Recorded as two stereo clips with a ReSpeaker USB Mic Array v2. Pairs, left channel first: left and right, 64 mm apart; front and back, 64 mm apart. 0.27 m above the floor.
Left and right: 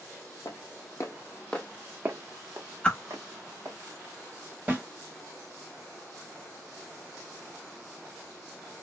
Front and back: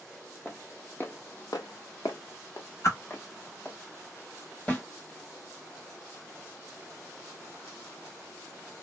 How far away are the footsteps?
About 0.9 m.